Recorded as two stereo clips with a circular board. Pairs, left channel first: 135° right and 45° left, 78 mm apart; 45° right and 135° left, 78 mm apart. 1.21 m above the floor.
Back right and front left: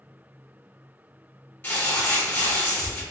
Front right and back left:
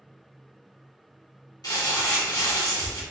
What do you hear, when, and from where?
1.6 s crumpling: 75° right, 2 m